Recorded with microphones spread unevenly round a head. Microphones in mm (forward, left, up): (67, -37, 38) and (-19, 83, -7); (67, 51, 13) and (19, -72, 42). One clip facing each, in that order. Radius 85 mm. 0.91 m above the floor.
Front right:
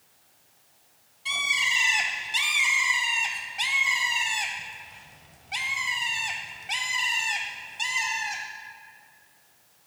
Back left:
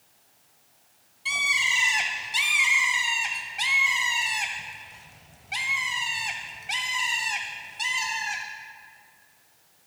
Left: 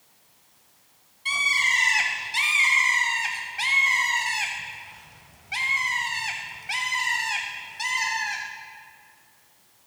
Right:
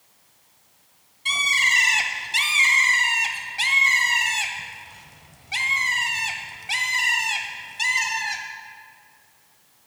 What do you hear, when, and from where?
1.2 s a bird: 125° right, 0.8 m